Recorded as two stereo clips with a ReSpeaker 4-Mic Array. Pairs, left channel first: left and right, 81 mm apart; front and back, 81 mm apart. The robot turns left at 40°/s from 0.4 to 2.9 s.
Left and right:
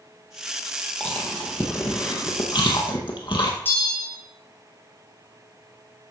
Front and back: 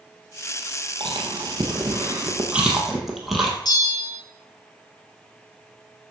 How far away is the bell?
About 2.5 m.